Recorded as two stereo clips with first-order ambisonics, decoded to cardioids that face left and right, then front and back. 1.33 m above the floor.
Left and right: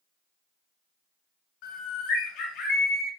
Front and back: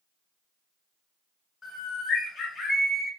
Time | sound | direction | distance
1.6 | a bird | 70° left | 1.1 m